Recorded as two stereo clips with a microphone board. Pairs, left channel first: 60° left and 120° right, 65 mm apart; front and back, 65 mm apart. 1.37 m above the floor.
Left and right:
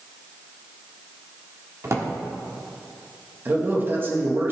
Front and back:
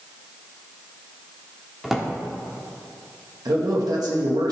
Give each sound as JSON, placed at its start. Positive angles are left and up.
{"t": 1.8, "sound": "a drawer", "azimuth_deg": -95, "distance_m": 1.3}
{"t": 3.5, "sound": "a man speaking", "azimuth_deg": 180, "distance_m": 1.8}